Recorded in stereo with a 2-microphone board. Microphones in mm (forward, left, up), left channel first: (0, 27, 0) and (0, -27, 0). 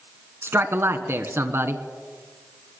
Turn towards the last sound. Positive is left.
turn(degrees=-50)  # may be behind; listen again after turning